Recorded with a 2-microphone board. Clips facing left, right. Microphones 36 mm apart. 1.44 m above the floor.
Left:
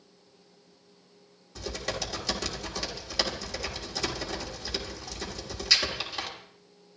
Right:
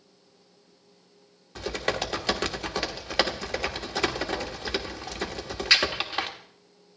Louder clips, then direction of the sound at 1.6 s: Right 5 dB; 45° right (ahead or behind).